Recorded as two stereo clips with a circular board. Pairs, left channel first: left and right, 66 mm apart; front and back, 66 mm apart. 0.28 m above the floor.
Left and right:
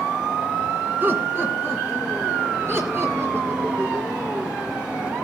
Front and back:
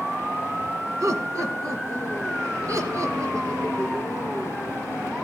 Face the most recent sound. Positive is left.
turn(degrees=-140)